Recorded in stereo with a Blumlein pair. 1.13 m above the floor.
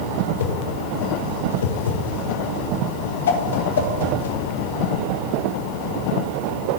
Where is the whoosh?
60° left, 1.0 m.